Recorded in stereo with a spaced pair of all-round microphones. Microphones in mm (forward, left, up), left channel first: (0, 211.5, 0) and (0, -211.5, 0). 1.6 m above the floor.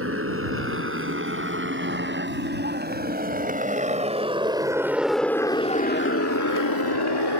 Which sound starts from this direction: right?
A motorcycle, at 0.0 s.